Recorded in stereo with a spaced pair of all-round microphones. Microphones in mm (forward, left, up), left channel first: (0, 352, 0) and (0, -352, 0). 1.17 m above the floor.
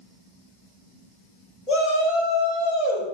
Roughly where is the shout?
Left.